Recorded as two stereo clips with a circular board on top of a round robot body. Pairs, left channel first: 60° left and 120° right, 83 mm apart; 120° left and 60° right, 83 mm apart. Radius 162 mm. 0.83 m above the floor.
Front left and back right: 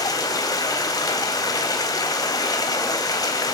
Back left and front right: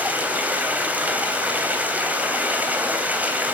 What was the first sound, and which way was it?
Running water, 10° left.